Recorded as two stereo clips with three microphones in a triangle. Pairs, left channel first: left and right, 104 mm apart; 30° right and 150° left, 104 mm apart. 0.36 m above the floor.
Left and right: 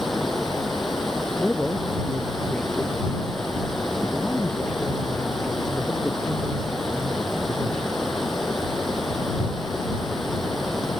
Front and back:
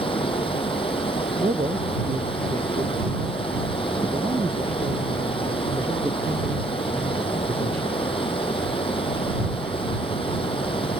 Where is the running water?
Straight ahead.